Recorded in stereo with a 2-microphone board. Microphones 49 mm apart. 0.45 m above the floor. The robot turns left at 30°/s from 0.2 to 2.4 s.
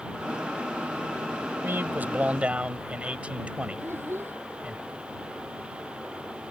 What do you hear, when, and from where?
1.6 s a man speaking: 45° right (ahead or behind); by 4.8 s 25° right (ahead or behind)
3.8 s a child speaking: 50° right (ahead or behind)